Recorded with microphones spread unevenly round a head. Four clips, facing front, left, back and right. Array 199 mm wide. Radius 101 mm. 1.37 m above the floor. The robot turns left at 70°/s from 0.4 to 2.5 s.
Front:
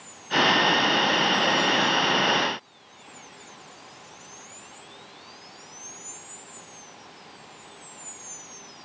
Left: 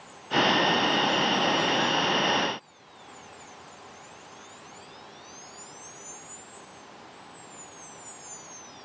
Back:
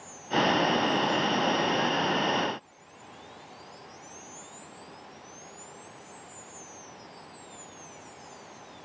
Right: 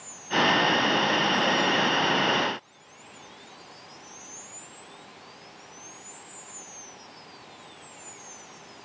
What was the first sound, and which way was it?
Only background noise.